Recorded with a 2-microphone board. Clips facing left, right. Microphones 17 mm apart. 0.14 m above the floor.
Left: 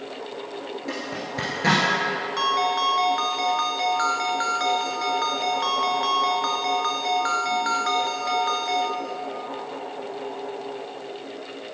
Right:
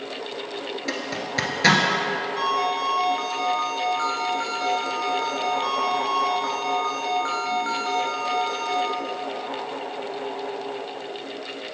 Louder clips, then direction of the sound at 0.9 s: Right 2 dB; 55° right (ahead or behind).